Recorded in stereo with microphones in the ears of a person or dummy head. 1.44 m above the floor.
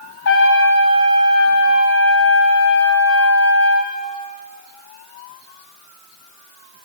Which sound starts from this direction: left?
A trumpet, at 0.2 s.